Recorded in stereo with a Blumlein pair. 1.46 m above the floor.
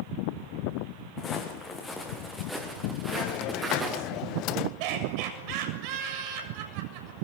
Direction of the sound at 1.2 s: 20° left.